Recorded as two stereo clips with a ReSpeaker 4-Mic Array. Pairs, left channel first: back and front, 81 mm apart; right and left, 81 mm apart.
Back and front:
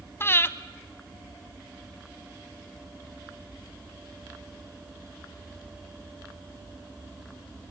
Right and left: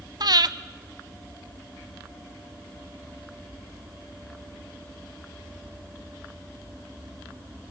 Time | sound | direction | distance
0.2 | breathing | 120° left | 0.7 m